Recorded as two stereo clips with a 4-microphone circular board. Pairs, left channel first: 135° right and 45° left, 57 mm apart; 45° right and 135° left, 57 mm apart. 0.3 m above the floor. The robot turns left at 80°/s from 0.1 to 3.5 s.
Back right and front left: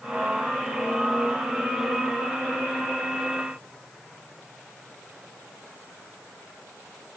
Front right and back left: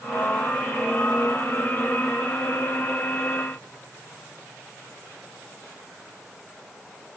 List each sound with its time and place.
Only background noise.